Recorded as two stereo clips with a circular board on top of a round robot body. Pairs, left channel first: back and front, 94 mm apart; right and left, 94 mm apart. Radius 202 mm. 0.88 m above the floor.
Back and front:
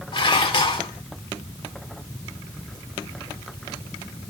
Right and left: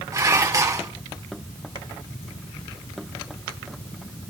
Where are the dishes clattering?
145° left, 2.5 m.